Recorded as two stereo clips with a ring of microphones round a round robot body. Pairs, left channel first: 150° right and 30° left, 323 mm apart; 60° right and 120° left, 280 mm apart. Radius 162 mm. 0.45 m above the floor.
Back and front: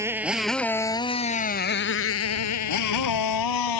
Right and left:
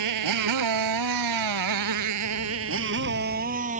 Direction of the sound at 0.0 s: 110° left.